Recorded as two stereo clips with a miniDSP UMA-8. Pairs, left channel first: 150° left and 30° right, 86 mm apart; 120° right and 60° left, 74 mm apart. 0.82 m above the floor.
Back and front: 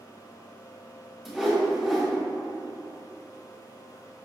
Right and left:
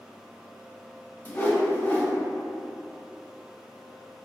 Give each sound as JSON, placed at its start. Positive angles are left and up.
{"t": 1.2, "sound": "a whoosh", "azimuth_deg": -115, "distance_m": 0.7}